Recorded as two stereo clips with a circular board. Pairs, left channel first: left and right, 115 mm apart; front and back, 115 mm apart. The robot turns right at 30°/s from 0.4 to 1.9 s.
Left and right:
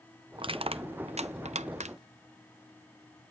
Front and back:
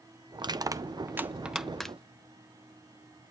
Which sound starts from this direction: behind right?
Crushing, at 0.4 s.